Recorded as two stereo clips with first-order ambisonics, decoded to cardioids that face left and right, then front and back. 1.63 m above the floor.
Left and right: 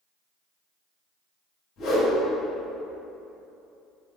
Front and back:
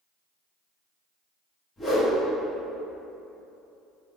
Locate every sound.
1.8 s a whoosh: 75° left, 1.2 m